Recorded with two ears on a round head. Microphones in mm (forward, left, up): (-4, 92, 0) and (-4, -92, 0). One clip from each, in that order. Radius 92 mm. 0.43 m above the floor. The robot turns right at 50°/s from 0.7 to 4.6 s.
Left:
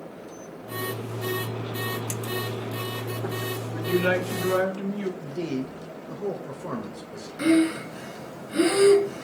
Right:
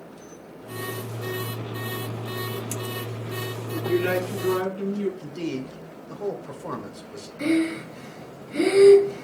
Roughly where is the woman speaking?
Behind left.